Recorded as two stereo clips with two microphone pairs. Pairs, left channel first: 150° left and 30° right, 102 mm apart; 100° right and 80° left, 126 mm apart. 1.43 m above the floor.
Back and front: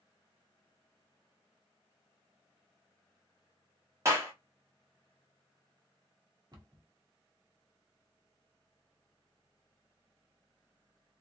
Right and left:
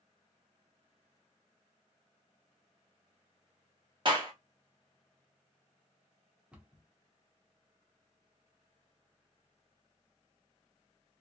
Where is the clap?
30° left, 1.4 m.